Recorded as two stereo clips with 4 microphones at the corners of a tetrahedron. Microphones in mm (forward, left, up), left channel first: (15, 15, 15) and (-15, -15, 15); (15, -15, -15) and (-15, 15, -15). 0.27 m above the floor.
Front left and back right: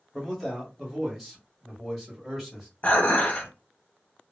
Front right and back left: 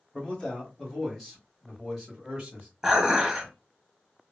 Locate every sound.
0.1 s a man speaking: 50° right, 1.7 m; by 2.7 s 165° left, 1.6 m
2.8 s dishes clattering: 70° left, 1.0 m